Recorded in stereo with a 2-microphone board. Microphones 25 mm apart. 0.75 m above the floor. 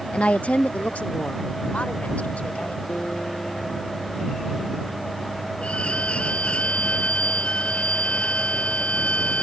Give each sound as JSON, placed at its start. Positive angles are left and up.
{"t": 0.1, "sound": "a woman speaking", "side_deg": 50}
{"t": 2.9, "sound": "a guitar", "side_deg": 70}
{"t": 5.6, "sound": "a violin", "side_deg": 45}